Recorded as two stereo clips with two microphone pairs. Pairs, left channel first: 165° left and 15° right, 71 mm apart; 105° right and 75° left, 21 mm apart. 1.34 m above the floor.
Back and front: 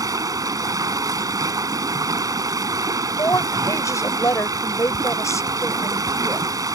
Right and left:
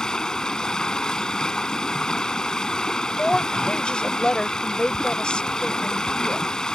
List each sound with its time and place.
0.0 s running water: 45° right
3.2 s a woman speaking: 150° right